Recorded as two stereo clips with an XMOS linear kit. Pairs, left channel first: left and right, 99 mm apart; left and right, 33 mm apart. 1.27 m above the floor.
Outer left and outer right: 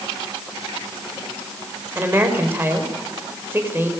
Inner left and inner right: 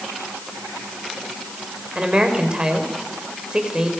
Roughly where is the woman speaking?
Right.